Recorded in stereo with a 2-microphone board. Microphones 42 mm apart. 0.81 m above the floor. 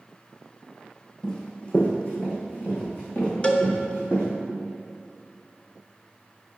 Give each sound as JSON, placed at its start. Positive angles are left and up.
{"t": 1.2, "sound": "running footsteps", "side_deg": 15, "distance_m": 1.9}
{"t": 3.4, "sound": "a cowbell", "side_deg": 30, "distance_m": 0.8}